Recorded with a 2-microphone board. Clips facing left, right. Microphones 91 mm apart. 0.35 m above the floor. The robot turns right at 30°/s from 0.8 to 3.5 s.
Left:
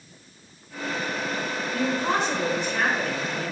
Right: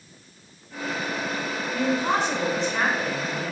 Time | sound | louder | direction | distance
1.7 | a woman speaking | right 1 dB | 175° right | 3.5 m